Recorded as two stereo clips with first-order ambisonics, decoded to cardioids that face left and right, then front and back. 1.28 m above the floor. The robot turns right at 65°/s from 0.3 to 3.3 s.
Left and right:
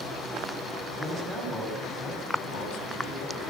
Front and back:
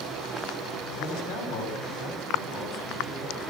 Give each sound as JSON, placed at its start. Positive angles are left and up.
{"t": 1.0, "sound": "a man speaking", "azimuth_deg": -45, "distance_m": 8.5}